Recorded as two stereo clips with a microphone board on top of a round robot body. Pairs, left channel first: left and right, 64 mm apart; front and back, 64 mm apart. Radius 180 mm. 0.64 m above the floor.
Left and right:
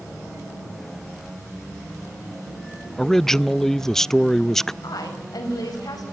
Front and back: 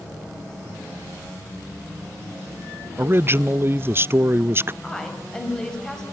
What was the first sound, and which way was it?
A man speaking, 170° left.